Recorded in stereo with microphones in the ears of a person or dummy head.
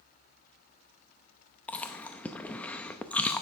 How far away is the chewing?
About 0.7 m.